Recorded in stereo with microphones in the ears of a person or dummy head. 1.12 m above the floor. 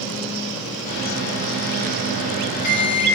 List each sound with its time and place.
0.9 s a microwave: 40° left (ahead or behind), 1.2 m